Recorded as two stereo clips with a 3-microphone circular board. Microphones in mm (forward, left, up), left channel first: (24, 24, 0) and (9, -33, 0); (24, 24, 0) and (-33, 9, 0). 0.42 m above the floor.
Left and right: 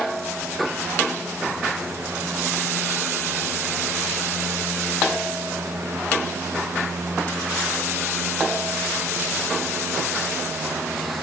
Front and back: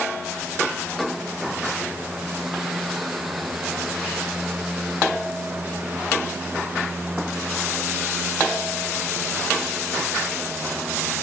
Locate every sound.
Only background noise.